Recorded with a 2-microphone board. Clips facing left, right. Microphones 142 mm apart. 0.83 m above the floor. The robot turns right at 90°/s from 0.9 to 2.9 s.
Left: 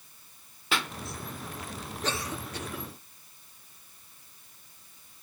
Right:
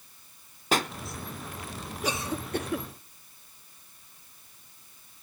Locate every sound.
0.7 s a pop: 40° right (ahead or behind), 0.7 m
2.0 s a cough: 5° right (ahead or behind), 1.3 m; by 2.9 s 65° right (ahead or behind), 1.3 m